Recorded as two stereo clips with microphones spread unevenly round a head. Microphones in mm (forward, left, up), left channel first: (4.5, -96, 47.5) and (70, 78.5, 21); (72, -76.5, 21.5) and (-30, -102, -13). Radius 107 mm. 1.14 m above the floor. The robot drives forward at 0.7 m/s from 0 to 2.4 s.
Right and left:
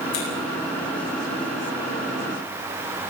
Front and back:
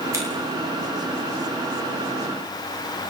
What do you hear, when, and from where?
0.1 s scissors: 105° right, 9.5 m